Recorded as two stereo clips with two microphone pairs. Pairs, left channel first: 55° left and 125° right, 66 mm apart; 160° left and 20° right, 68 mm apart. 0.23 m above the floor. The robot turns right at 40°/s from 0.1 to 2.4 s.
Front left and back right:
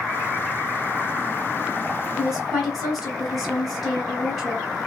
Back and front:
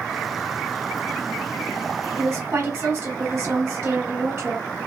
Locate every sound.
2.2 s a woman speaking: 55° right, 1.3 m; by 4.7 s 45° right, 1.3 m